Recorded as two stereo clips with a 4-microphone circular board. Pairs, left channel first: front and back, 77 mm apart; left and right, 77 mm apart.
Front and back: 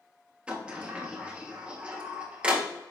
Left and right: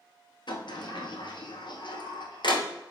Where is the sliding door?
105° left, 0.7 m.